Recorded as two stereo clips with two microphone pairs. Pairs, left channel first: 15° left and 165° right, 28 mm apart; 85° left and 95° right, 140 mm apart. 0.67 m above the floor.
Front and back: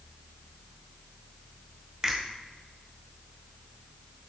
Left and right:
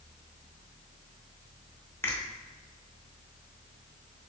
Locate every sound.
2.0 s a finger snap: 155° left, 0.7 m